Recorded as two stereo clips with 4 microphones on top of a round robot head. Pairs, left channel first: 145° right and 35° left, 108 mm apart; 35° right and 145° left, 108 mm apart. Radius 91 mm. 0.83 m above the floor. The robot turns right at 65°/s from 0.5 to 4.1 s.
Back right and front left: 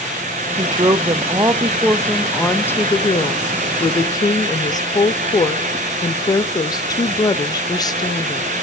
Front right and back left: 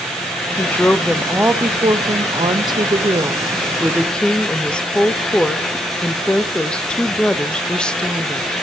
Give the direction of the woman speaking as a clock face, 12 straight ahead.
11 o'clock.